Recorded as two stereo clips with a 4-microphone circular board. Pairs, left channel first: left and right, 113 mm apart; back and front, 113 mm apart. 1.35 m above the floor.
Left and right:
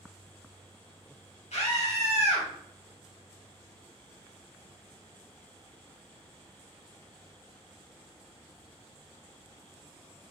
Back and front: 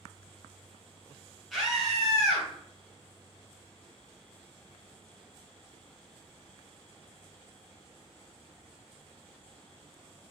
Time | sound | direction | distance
1.5 | a scream | 90° left | 2 m